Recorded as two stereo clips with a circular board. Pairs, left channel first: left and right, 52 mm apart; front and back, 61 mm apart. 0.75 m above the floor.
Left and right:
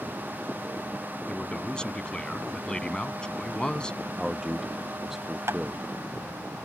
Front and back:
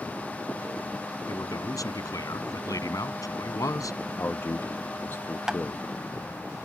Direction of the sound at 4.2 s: 10° right.